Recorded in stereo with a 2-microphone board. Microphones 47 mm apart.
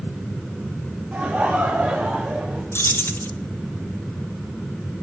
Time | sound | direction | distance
1.1 | laughter | 35° right (ahead or behind) | 1.9 m
2.7 | keys jangling | 60° left (ahead or behind) | 0.7 m